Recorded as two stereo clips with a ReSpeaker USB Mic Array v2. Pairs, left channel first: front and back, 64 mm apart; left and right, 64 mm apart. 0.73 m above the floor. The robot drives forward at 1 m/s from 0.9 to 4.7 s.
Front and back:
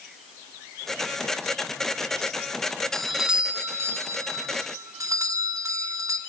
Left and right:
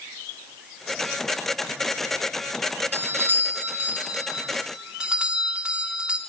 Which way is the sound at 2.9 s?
75° right.